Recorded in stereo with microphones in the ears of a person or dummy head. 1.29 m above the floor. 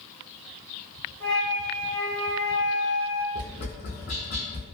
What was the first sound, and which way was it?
A flute, 5° left (ahead or behind).